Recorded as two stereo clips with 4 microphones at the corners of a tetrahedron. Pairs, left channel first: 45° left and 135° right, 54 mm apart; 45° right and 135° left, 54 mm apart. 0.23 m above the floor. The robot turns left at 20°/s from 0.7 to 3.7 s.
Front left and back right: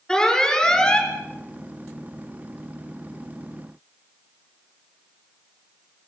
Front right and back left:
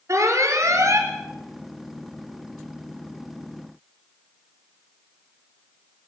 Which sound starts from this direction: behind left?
An alarm, at 0.1 s.